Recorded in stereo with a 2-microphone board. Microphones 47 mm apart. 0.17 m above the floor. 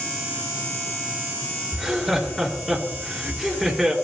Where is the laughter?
Centre (ahead or behind), 3 m.